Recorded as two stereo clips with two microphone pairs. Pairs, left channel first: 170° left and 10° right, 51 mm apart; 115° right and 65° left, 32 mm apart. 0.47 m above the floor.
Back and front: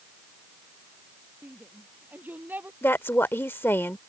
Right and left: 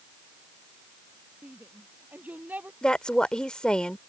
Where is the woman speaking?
165° right.